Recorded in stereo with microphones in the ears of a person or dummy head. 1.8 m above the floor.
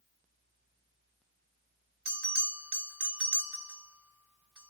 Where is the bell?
Centre (ahead or behind), 1.8 m.